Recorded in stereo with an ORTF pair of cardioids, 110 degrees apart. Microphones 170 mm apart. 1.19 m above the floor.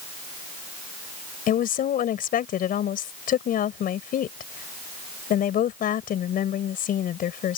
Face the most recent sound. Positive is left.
turn(degrees=55)